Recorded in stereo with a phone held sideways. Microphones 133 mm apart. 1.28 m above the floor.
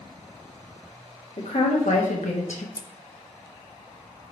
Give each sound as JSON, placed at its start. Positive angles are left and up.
{"t": 1.4, "sound": "a woman speaking", "side_deg": 70, "distance_m": 2.0}
{"t": 2.8, "sound": "scissors", "side_deg": 30, "distance_m": 0.6}